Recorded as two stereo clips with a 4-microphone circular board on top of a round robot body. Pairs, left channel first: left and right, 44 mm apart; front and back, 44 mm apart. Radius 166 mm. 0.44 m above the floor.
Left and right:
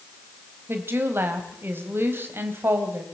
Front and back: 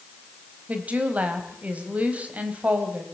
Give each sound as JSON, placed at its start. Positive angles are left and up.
{"t": 0.7, "sound": "a woman speaking", "azimuth_deg": -120, "distance_m": 3.5}